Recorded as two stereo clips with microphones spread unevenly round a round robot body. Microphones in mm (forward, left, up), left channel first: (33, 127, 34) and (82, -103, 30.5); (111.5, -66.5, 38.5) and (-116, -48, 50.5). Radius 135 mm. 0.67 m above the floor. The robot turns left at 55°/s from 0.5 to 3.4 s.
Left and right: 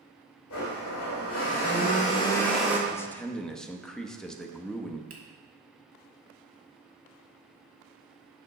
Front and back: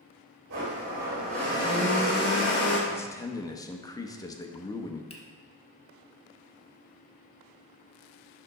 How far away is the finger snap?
About 1.4 m.